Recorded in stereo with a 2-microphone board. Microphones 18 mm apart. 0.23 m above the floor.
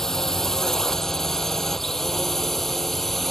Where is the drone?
25° left (ahead or behind); by 3.3 s 10° left (ahead or behind).